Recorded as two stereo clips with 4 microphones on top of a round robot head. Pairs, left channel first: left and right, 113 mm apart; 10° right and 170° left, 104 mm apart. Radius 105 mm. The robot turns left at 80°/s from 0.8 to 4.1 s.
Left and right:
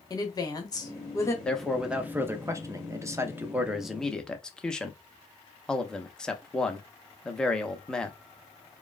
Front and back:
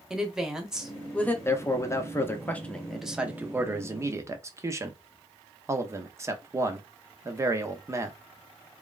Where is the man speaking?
20° left, 0.8 m; by 8.2 s 165° left, 0.8 m.